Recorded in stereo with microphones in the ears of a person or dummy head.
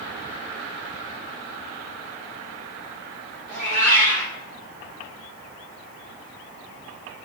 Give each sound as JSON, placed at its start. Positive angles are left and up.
{"t": 3.5, "sound": "a cat meowing", "side_deg": -65, "distance_m": 1.9}